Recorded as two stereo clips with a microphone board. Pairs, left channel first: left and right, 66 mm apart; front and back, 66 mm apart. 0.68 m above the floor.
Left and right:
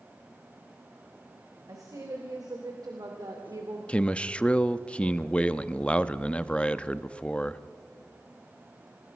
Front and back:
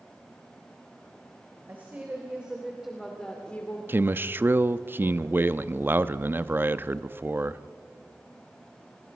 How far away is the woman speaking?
About 3.5 m.